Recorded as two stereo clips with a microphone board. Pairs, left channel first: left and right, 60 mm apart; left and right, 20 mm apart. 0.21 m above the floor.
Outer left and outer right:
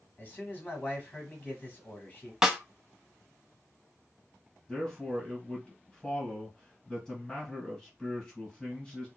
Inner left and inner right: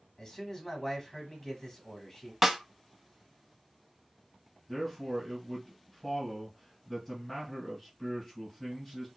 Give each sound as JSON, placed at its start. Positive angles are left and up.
{"t": 0.2, "sound": "a man speaking", "side_deg": 25, "distance_m": 1.1}
{"t": 2.4, "sound": "a snare drum", "side_deg": -10, "distance_m": 0.5}
{"t": 4.7, "sound": "a man speaking", "side_deg": 10, "distance_m": 1.7}